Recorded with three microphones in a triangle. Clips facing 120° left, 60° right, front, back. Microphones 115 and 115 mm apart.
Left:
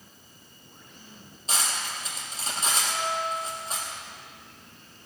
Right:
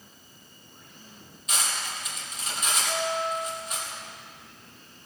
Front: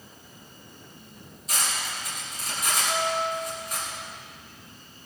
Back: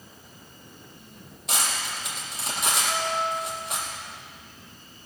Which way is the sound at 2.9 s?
110° right.